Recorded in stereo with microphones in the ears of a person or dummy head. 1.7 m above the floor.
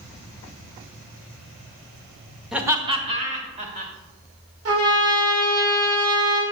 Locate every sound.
2.5 s laughter: 5° right (ahead or behind), 0.7 m; by 3.9 s 45° right (ahead or behind), 2 m
4.7 s a trumpet: 70° right (ahead or behind), 2 m